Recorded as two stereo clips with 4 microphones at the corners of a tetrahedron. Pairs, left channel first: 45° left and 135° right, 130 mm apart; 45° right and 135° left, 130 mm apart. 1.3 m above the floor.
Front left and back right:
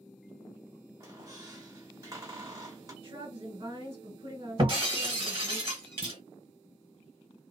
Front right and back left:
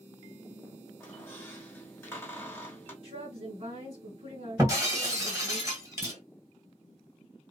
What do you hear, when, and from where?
1.0 s a squeak: 105° right, 1.2 m
3.0 s a woman speaking: 170° left, 1.6 m
4.6 s breaking glass: 170° right, 1.5 m
6.0 s a clunk: 175° left, 0.7 m